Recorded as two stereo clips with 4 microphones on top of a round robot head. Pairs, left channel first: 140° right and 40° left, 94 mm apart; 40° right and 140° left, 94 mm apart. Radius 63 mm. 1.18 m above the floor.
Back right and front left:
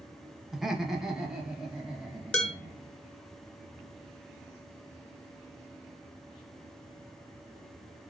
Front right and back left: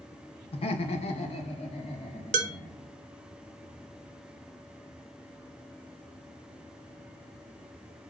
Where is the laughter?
50° right, 0.8 m; by 2.9 s 40° right, 2.5 m.